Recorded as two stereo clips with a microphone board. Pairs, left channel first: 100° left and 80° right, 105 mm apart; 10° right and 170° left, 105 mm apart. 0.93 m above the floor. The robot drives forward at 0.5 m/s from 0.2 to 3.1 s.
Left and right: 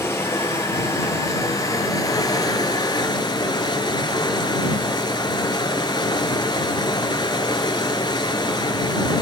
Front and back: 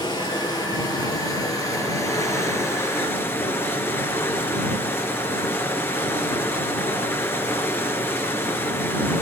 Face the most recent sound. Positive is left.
turn(degrees=55)